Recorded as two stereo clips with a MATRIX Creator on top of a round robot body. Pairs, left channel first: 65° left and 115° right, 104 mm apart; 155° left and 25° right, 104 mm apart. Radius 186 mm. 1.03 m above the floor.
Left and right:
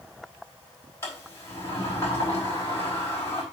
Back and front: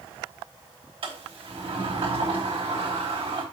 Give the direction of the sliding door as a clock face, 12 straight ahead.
12 o'clock.